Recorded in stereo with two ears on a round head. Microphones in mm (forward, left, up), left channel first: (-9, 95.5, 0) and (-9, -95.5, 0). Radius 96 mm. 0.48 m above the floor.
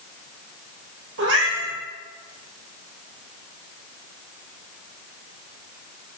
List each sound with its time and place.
1.2 s a cat meowing: 65° right (ahead or behind), 5 m